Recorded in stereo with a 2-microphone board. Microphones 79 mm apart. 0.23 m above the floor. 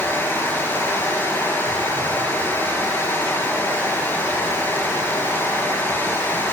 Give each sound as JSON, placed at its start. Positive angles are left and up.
{"t": 0.0, "sound": "running water", "side_deg": 30, "distance_m": 4.0}